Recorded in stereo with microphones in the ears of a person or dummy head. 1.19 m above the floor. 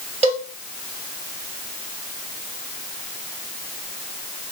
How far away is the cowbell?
About 0.6 m.